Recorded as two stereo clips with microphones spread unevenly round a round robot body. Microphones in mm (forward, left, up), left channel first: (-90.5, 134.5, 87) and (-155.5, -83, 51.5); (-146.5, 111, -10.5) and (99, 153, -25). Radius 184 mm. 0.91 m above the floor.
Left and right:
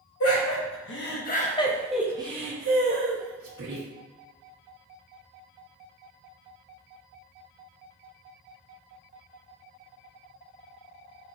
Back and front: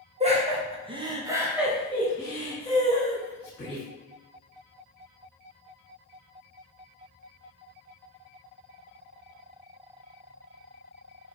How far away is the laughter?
About 1.3 m.